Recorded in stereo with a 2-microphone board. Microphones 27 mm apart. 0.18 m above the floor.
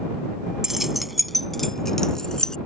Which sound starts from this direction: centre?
Keys jangling, at 0.6 s.